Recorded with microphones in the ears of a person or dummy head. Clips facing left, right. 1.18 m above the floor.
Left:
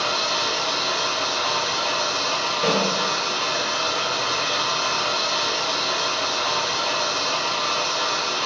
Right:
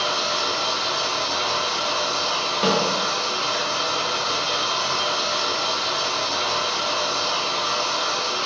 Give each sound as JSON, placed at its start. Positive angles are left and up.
{"t": 0.0, "sound": "running water", "side_deg": -15, "distance_m": 1.0}
{"t": 2.6, "sound": "a snare drum", "side_deg": -55, "distance_m": 0.6}